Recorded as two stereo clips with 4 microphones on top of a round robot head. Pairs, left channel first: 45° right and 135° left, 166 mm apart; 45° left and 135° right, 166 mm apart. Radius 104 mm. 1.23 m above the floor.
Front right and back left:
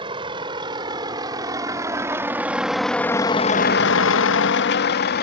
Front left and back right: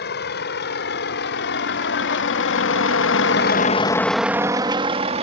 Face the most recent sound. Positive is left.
turn(degrees=-75)